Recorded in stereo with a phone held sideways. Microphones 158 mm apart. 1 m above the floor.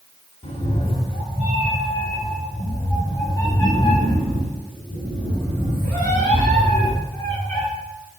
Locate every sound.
0.4 s a cat meowing: 45° left (ahead or behind), 1.9 m; by 7.7 s 10° left (ahead or behind), 7 m